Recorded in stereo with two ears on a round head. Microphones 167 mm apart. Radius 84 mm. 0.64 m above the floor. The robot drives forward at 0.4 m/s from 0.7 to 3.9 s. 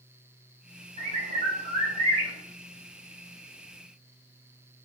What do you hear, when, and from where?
1.0 s a bird: 35° right (ahead or behind), 1.0 m; by 2.3 s 25° right (ahead or behind), 1.2 m